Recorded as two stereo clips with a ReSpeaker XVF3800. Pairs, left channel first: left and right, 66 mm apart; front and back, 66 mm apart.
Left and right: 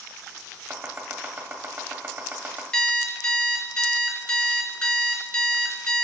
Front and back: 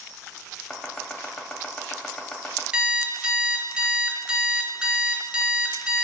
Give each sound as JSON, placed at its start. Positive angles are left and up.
{"t": 0.7, "sound": "chopping", "azimuth_deg": -70, "distance_m": 0.7}
{"t": 2.7, "sound": "an alarm clock", "azimuth_deg": 140, "distance_m": 0.7}